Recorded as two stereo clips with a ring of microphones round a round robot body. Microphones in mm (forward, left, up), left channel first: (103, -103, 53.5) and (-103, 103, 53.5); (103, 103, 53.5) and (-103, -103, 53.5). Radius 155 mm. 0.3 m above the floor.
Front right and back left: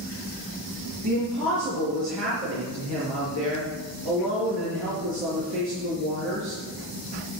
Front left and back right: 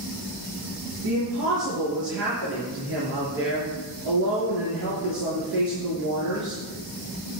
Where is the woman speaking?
175° left, 5 m.